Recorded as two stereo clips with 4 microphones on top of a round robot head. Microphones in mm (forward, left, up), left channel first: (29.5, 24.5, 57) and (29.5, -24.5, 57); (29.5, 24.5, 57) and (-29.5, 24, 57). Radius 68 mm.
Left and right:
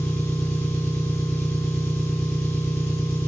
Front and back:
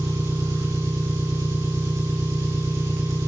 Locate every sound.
0.0 s an engine running: 150° left, 3.5 m